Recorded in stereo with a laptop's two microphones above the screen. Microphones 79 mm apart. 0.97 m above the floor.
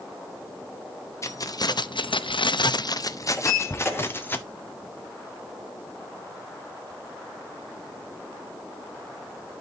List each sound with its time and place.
1.2 s keys jangling: 35° left (ahead or behind), 0.8 m; by 4.4 s 25° left (ahead or behind), 1.6 m
3.4 s a sliding door: 10° left (ahead or behind), 7 m